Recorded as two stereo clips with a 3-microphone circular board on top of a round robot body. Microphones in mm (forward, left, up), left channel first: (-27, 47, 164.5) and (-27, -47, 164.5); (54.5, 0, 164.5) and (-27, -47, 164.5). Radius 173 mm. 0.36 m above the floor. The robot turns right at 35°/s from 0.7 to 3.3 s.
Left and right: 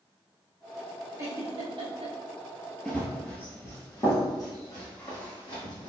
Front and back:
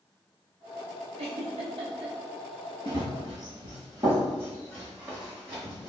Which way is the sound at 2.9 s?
175° left.